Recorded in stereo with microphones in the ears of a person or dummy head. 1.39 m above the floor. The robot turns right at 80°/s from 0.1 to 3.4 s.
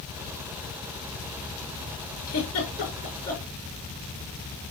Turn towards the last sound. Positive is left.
turn(degrees=5)  # may be behind; listen again after turning